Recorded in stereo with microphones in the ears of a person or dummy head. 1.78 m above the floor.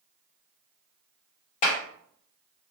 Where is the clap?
35° left (ahead or behind), 0.7 m.